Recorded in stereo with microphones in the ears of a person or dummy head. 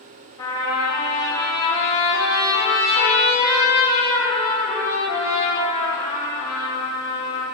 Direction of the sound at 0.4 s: 25° left (ahead or behind).